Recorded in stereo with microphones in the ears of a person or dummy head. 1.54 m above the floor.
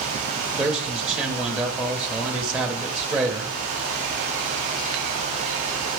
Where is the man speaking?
5° right (ahead or behind), 0.8 m.